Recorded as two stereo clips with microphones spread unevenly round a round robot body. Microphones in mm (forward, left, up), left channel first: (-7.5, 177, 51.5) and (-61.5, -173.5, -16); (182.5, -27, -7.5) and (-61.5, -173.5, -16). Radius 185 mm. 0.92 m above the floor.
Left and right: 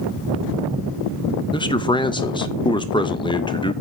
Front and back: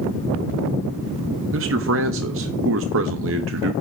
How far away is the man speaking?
About 0.5 m.